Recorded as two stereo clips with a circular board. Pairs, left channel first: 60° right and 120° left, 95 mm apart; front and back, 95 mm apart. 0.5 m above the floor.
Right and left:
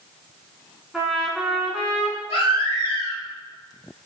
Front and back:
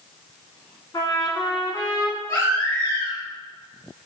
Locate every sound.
0.9 s a trumpet: 35° left, 0.6 m
2.3 s a baby crying: 60° right, 1.6 m